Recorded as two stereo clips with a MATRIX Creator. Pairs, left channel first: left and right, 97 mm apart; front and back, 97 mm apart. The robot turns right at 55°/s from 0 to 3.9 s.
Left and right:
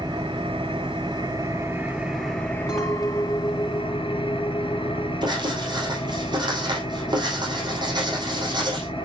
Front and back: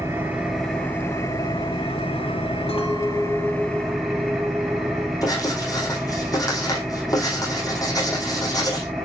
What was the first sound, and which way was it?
An engine running, 125° right.